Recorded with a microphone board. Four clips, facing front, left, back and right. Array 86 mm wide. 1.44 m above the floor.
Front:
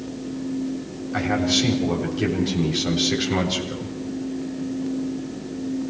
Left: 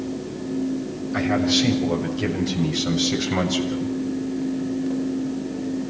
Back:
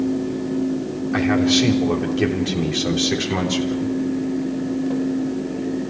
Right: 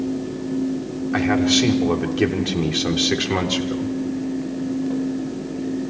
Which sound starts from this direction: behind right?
A man speaking, at 1.1 s.